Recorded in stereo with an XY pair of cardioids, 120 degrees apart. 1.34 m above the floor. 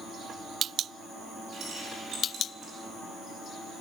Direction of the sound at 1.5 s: 50° right.